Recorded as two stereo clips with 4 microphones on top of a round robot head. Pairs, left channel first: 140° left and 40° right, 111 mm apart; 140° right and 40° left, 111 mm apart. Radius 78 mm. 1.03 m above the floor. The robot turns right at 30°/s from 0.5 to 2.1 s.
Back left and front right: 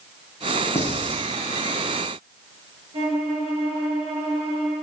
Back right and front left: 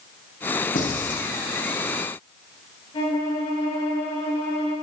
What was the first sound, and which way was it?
Writing, 150° right.